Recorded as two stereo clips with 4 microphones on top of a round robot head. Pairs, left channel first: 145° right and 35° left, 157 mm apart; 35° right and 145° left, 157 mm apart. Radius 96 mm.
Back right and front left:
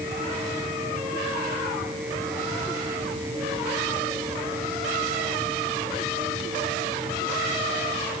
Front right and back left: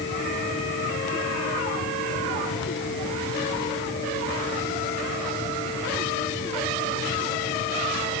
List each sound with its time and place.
Only background noise.